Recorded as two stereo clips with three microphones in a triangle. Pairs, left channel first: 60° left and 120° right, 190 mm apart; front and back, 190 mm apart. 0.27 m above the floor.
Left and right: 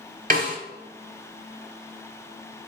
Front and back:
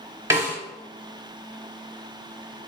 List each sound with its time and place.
0.3 s a snare drum: 110° right, 0.9 m